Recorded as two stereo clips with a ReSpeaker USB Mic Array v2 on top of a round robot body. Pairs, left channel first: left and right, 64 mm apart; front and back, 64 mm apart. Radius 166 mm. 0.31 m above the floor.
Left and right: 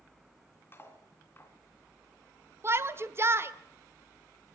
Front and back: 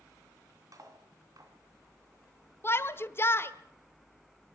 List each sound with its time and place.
0.7 s cutlery clinking: 145° left, 3 m
2.6 s a shout: 50° right, 1.5 m